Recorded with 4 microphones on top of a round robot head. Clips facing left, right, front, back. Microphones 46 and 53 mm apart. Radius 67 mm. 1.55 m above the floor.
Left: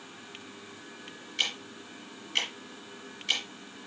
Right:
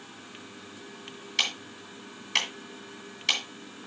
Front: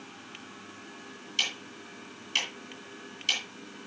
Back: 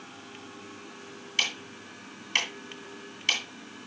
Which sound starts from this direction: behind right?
Ticking, at 1.4 s.